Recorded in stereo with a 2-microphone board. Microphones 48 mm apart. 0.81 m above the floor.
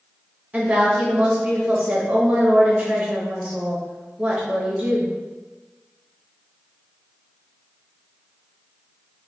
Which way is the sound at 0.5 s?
30° right (ahead or behind).